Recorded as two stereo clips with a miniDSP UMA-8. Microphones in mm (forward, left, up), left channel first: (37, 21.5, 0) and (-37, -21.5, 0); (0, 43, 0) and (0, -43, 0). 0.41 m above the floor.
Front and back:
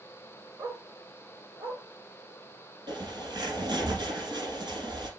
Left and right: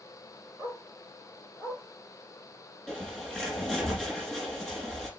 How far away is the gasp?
No gasp in this recording.